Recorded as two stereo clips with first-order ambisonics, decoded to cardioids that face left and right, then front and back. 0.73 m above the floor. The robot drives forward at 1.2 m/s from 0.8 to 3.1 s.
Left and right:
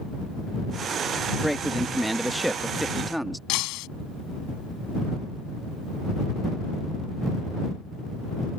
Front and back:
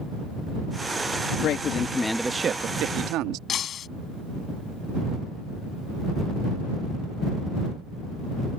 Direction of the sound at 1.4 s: Straight ahead.